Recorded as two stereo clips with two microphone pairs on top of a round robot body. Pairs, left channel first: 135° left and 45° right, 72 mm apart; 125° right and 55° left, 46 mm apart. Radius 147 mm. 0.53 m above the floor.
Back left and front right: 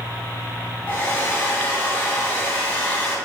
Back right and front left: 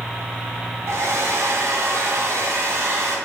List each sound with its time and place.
0.9 s a hair dryer: 65° left, 3 m